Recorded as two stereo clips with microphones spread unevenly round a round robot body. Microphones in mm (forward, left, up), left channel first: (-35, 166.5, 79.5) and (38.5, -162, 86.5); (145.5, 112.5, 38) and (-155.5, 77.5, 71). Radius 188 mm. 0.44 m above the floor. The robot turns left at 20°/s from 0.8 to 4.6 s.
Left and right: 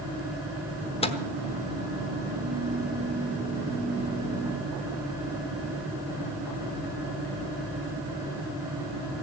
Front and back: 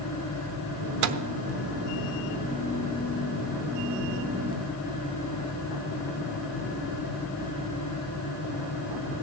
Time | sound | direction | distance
1.0 | a microwave | 170° left | 1.0 m